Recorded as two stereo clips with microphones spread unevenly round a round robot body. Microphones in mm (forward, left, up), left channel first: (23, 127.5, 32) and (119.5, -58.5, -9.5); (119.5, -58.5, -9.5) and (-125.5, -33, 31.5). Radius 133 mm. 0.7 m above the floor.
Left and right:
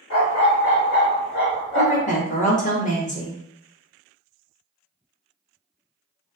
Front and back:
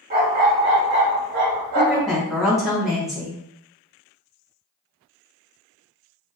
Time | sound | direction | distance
0.1 | a dog barking | 120° left | 1.2 m
1.8 | a woman speaking | 70° left | 1.1 m